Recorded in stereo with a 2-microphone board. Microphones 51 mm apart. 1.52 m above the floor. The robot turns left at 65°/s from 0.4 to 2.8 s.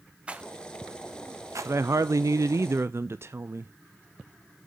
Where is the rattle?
20° right (ahead or behind), 0.9 m; by 1.7 s 65° right (ahead or behind), 0.9 m.